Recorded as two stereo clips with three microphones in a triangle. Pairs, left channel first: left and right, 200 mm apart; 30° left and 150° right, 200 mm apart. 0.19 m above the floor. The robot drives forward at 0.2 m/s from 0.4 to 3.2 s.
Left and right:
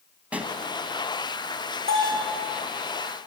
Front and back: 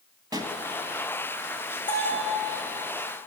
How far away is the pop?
About 1.4 m.